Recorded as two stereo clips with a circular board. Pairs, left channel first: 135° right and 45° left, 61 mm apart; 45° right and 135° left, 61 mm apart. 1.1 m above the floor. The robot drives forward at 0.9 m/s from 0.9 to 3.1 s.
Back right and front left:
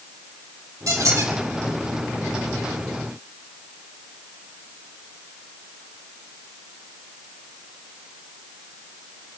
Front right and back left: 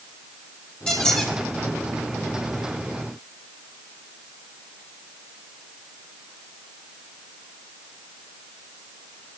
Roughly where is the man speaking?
No man speaking in this recording.